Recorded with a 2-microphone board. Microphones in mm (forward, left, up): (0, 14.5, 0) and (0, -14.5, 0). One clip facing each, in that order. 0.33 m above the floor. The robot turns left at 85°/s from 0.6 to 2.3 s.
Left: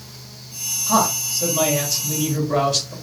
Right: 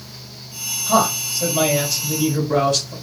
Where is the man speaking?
25° right (ahead or behind), 1.6 m; by 2.9 s 10° left (ahead or behind), 1.6 m.